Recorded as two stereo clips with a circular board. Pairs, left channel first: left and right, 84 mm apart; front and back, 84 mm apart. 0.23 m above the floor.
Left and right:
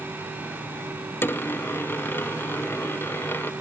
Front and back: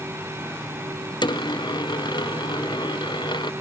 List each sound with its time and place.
1.2 s a dropped coin: 25° left